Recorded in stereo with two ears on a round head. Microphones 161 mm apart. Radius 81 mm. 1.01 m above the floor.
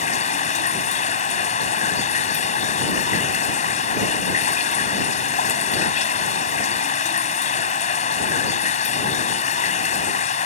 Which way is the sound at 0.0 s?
40° left (ahead or behind).